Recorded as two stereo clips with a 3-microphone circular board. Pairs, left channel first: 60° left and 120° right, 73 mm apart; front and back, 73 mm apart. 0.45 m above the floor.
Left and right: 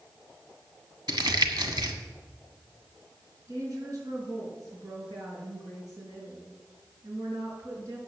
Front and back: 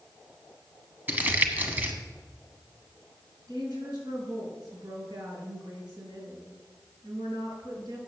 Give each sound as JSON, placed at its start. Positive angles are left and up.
{"t": 1.1, "sound": "crumpling", "azimuth_deg": -115, "distance_m": 1.2}
{"t": 3.5, "sound": "a woman speaking", "azimuth_deg": -165, "distance_m": 4.5}